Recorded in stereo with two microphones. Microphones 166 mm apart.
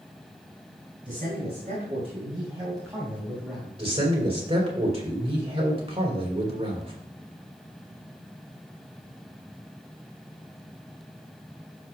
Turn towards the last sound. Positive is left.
turn(degrees=-35)  # may be behind; listen again after turning